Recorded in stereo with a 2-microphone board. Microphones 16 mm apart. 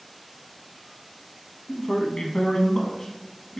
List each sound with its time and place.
1.7 s a man speaking: 35° left (ahead or behind), 0.8 m